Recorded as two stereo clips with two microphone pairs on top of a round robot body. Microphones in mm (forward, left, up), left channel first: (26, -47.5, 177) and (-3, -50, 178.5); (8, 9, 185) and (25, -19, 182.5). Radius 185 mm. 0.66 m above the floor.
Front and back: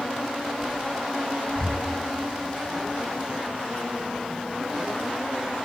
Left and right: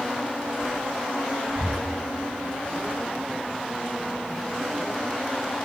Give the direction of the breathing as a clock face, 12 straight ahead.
2 o'clock.